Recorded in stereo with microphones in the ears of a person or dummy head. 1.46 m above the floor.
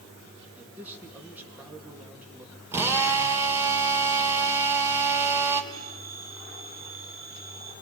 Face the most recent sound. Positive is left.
turn(degrees=-35)  # may be behind; listen again after turning